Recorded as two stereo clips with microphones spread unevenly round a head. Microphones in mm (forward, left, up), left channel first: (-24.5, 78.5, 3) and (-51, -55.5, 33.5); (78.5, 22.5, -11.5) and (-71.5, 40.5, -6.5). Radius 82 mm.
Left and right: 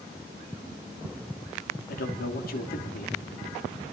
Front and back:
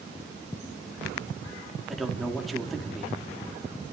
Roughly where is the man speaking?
Left.